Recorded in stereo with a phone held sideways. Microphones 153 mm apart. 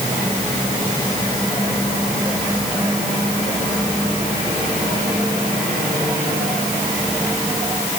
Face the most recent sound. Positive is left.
No sound to turn to.